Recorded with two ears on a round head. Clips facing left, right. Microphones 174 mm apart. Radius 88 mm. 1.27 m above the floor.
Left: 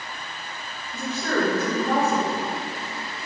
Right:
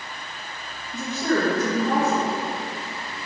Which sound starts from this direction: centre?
A woman speaking, at 0.9 s.